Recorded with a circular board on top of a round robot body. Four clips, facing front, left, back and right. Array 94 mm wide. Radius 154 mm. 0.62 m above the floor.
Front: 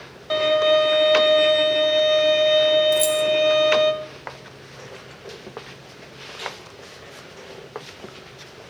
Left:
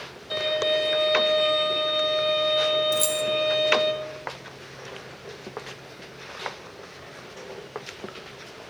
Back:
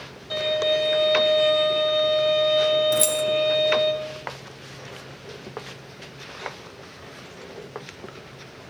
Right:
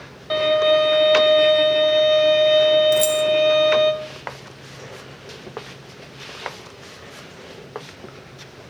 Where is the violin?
45° right, 1.3 m.